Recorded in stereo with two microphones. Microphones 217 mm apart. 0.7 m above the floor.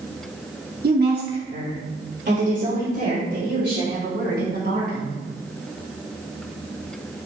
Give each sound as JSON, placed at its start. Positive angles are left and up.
{"t": 0.8, "sound": "a woman speaking", "side_deg": -45, "distance_m": 1.1}